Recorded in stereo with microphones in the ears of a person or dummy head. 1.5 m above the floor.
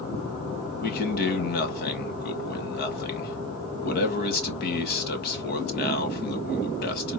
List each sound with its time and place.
0.8 s a man speaking: 55° left (ahead or behind), 1.4 m